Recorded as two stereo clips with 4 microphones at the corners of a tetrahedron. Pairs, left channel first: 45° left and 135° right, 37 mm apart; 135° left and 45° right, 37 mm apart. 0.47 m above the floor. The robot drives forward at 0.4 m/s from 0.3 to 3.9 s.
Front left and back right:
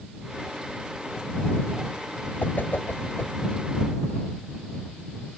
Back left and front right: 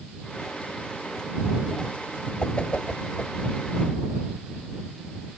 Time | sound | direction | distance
2.4 | a whoosh | 75° left | ?